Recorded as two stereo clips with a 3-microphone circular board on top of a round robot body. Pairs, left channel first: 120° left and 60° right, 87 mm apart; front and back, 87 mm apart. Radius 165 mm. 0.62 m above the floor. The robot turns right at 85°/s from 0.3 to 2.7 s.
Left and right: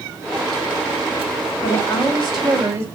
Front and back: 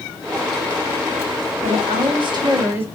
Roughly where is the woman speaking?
Behind left.